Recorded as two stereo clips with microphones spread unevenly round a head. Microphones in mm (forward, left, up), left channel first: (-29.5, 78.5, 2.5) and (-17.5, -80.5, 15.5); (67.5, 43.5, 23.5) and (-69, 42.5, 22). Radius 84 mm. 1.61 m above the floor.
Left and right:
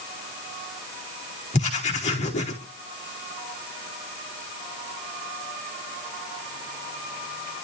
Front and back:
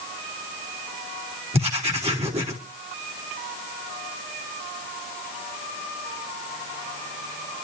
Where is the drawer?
I don't hear a drawer.